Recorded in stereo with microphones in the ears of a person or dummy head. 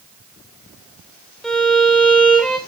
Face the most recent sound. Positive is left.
turn(degrees=0)  # may be behind; listen again after turning